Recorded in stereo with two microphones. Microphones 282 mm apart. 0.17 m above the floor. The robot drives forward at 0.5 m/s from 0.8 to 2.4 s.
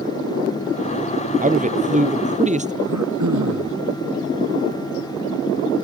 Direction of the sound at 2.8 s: 75° right (ahead or behind).